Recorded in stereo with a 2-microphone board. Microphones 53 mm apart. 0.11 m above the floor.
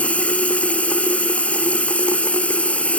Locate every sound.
0.0 s running water: 25° left (ahead or behind)